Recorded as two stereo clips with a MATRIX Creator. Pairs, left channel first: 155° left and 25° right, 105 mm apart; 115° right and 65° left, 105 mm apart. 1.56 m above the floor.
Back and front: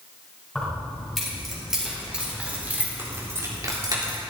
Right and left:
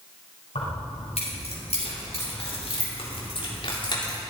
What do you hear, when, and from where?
0.6 s keys jangling: 120° right, 5.5 m; by 4.2 s 70° right, 3.5 m